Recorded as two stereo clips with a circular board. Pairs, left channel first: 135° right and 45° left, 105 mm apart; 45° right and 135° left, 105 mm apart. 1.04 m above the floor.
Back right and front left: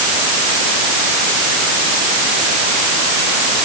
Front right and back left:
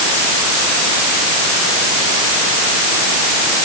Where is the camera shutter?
No camera shutter in this recording.